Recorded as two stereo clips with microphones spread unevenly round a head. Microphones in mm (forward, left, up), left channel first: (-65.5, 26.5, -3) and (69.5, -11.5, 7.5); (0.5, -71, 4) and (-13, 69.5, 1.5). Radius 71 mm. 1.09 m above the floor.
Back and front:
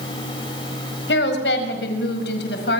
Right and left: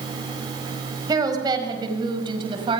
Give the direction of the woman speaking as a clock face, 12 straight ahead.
7 o'clock.